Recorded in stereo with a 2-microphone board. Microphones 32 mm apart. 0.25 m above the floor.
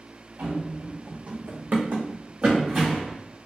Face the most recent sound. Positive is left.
turn(degrees=-15)  # may be behind; listen again after turning